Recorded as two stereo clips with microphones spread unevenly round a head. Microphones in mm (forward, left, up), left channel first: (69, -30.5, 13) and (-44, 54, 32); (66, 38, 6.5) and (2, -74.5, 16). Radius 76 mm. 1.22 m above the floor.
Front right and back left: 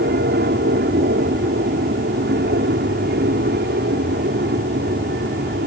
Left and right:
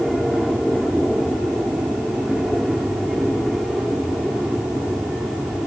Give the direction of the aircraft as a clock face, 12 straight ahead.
7 o'clock.